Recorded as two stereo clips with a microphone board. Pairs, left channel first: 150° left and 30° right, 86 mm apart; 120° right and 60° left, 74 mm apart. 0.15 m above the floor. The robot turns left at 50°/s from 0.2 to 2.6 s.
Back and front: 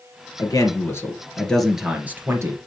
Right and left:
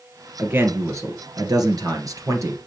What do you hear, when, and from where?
0.4 s a man speaking: 125° left, 2 m; by 2.6 s 15° left, 2 m